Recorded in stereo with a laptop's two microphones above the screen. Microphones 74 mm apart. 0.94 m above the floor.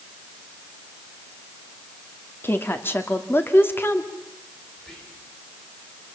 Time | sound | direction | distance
2.4 | a woman speaking | 30° left (ahead or behind) | 2.5 m
4.8 | whispering | 10° left (ahead or behind) | 3.5 m